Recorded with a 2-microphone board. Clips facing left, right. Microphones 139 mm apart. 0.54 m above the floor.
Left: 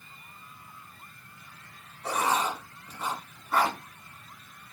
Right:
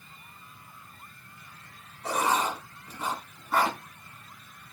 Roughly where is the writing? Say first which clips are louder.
Right 1 dB; centre.